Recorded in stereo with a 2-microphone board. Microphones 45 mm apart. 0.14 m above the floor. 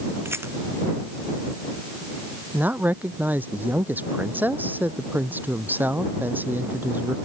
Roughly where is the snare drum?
No snare drum in this recording.